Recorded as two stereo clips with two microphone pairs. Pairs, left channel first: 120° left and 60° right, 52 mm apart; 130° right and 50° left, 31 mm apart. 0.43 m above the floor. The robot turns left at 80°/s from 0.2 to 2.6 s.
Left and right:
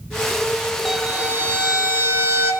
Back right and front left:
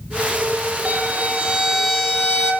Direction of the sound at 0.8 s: 35° left.